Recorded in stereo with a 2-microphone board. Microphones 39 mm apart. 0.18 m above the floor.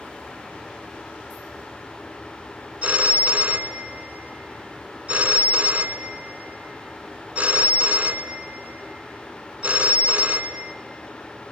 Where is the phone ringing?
35° right (ahead or behind), 1.1 m.